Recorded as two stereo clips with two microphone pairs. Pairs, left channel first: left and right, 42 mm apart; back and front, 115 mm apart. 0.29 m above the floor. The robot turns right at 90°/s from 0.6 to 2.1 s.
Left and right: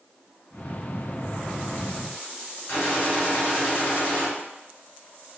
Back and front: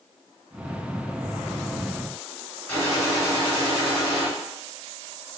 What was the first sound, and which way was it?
A gunshot, 110° left.